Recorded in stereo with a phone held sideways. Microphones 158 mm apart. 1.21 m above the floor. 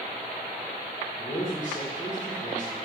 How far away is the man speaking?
About 0.9 m.